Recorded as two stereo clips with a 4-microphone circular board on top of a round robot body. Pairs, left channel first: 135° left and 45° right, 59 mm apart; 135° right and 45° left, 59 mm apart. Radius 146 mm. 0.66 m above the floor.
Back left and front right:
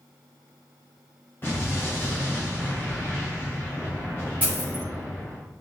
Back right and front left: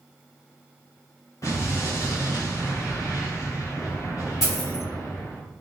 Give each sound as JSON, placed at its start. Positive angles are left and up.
{"t": 1.4, "sound": "an explosion", "azimuth_deg": -170, "distance_m": 1.1}
{"t": 4.4, "sound": "a dropped coin", "azimuth_deg": -110, "distance_m": 1.5}